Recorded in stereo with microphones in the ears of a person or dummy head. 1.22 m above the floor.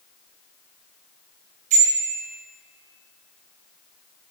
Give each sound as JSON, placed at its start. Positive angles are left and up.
{"t": 1.7, "sound": "a bicycle bell", "side_deg": -40, "distance_m": 4.0}